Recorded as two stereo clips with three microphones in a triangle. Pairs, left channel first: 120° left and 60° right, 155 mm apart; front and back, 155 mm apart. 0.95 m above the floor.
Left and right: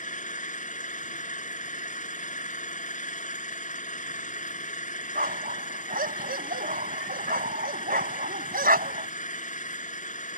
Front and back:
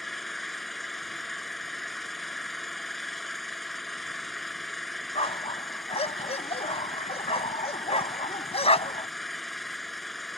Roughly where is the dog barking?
Ahead right.